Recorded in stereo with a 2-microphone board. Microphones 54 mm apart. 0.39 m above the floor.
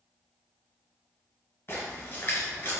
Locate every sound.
1.7 s a splash: 50° left (ahead or behind), 1.7 m